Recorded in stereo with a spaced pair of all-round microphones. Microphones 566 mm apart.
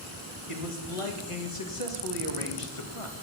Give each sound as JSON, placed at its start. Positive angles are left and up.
{"t": 0.5, "sound": "a man speaking", "side_deg": 65, "distance_m": 2.0}